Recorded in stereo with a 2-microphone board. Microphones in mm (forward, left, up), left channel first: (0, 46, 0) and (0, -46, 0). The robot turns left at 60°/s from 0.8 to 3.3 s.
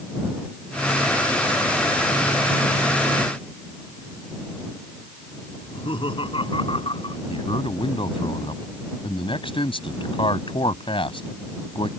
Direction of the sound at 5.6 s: 75° left (ahead or behind).